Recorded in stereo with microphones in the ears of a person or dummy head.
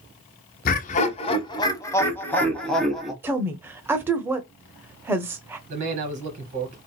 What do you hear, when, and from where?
0.7 s laughter: 45° left (ahead or behind), 1.0 m; by 3.1 s centre (ahead or behind), 1.7 m
3.2 s a woman speaking: 10° right (ahead or behind), 0.7 m
5.7 s a man speaking: 40° right (ahead or behind), 2.5 m